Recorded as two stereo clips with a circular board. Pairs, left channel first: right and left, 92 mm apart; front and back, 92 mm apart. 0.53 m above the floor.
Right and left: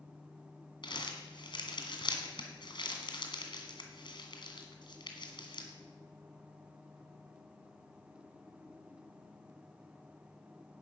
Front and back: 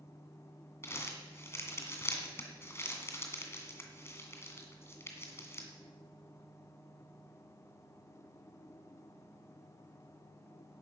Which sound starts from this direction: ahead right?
Crumpling, at 0.8 s.